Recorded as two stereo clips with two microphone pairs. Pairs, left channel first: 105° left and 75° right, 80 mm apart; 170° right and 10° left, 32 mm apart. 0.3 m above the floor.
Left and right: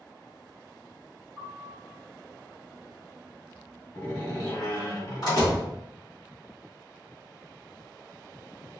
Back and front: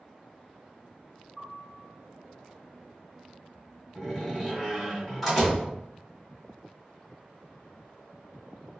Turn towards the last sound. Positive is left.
turn(degrees=100)